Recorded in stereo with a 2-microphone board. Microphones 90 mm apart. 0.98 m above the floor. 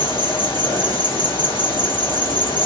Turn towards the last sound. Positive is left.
turn(degrees=60)  # may be behind; listen again after turning